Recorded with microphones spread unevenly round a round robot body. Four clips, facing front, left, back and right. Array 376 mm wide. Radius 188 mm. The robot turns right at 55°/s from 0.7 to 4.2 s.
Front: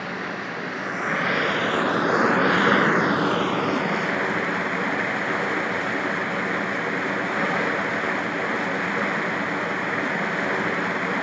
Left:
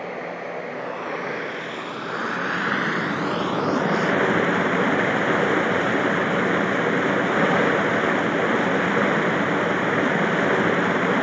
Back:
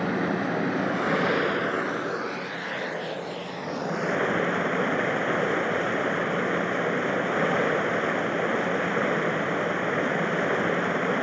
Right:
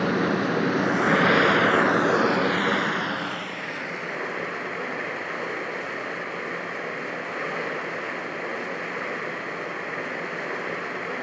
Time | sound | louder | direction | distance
0.0 | running water | right 7 dB, back 5 dB | 110° right | 1.1 m